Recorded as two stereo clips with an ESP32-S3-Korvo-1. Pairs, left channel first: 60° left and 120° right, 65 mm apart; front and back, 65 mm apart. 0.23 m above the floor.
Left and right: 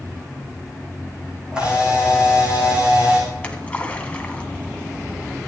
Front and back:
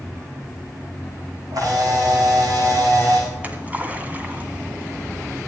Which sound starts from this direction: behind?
A camera shutter, at 1.5 s.